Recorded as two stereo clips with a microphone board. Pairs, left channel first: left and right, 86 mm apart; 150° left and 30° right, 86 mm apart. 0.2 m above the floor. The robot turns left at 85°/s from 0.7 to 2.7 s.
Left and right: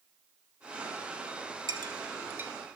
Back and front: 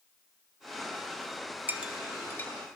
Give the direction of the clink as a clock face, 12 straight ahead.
3 o'clock.